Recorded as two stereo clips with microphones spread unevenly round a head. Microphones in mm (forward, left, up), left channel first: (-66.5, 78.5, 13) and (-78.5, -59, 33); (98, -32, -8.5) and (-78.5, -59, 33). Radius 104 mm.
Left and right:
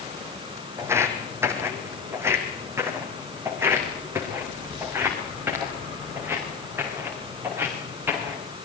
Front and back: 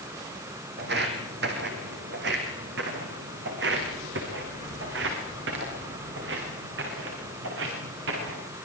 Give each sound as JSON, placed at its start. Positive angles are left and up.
{"t": 0.8, "sound": "footsteps", "azimuth_deg": -160, "distance_m": 4.0}